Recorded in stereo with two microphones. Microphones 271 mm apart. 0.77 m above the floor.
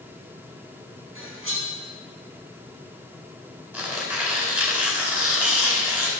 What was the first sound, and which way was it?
Cutlery clinking, 50° right (ahead or behind).